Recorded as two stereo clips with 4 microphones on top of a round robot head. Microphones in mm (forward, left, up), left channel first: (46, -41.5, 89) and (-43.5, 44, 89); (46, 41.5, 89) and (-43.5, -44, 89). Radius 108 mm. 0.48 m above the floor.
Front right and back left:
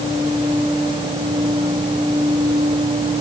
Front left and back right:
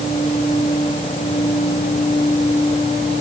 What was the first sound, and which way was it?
Only background noise.